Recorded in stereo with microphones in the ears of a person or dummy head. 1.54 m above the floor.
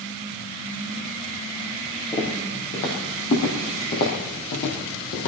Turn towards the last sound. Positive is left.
turn(degrees=65)  # may be behind; listen again after turning